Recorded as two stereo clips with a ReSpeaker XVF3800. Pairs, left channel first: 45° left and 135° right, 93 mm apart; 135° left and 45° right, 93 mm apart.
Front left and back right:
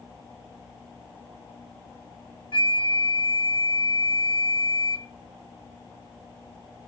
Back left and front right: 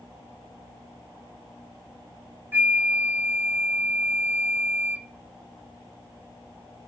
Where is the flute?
25° left, 0.5 m.